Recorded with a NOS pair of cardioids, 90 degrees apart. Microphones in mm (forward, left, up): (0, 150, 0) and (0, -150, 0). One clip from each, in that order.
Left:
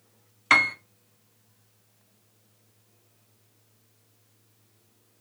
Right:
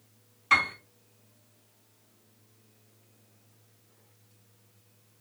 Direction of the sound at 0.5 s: 65° left.